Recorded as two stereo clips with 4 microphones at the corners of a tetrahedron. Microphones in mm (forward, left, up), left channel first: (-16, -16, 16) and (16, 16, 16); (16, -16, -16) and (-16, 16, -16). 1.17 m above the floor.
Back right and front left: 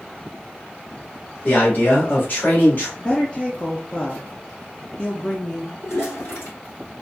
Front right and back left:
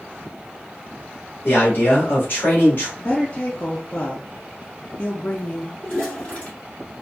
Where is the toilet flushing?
105° right, 2.5 m.